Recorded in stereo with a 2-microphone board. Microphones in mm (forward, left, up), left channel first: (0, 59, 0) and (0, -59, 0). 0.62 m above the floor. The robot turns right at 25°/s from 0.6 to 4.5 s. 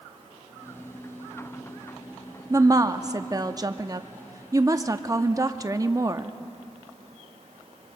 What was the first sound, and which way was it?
A woman speaking, 115° right.